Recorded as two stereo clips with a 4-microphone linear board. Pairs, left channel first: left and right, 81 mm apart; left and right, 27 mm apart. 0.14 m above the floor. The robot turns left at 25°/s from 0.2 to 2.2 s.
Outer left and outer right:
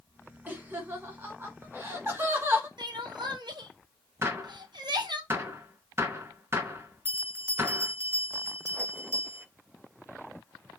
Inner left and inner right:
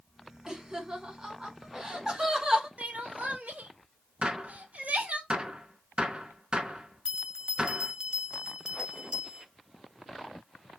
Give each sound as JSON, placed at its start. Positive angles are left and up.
{"t": 0.5, "sound": "laughter", "side_deg": -20, "distance_m": 1.3}
{"t": 2.8, "sound": "crying", "side_deg": -65, "distance_m": 0.9}
{"t": 4.2, "sound": "a gunshot", "side_deg": -30, "distance_m": 0.7}
{"t": 7.0, "sound": "a bell", "side_deg": -30, "distance_m": 0.7}